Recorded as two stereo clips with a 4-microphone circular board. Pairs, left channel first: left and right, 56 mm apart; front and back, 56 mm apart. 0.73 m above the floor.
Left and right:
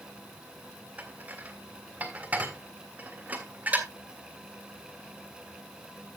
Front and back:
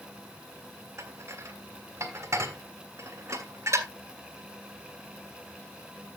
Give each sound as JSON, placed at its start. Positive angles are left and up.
{"t": 1.0, "sound": "dishes clattering", "azimuth_deg": -150, "distance_m": 1.6}